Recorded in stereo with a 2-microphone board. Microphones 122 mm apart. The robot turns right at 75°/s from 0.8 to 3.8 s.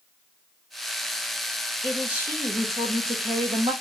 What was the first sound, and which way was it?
A man speaking, 170° left.